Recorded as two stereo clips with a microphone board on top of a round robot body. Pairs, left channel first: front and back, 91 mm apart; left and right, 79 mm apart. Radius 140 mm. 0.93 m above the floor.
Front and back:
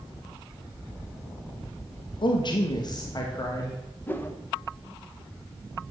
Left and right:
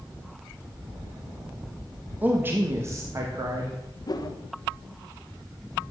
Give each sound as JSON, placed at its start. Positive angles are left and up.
{"t": 2.2, "sound": "a man speaking", "azimuth_deg": -20, "distance_m": 1.3}
{"t": 4.1, "sound": "a whoosh", "azimuth_deg": 65, "distance_m": 1.2}